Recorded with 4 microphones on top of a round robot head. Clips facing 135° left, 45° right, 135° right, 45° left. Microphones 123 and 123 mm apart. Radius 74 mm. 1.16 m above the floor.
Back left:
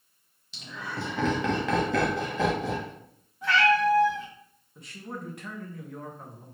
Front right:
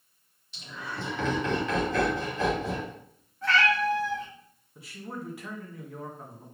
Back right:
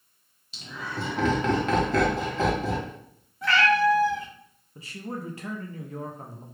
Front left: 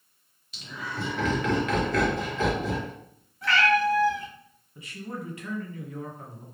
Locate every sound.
0.5 s laughter: 160° left, 1.2 m
3.4 s a cat meowing: 145° right, 1.0 m
4.8 s a man speaking: 130° right, 0.6 m